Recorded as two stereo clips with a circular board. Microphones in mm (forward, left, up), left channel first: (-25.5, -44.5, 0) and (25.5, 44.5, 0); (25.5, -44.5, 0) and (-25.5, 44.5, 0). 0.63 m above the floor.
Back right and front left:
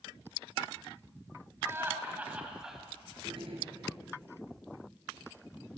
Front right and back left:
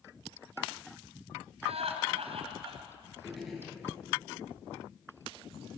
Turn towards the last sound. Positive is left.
turn(degrees=30)